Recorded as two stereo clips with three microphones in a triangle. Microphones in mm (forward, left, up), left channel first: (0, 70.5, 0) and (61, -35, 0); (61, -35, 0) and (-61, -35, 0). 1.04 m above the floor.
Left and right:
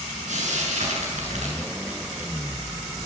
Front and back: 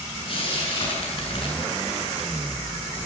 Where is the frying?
45° right, 7 m.